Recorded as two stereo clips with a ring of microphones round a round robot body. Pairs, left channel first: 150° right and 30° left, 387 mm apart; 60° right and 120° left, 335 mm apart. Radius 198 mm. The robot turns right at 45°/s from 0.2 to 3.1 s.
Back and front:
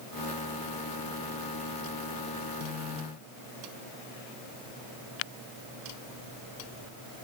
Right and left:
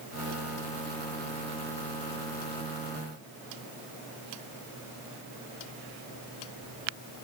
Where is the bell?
I don't hear a bell.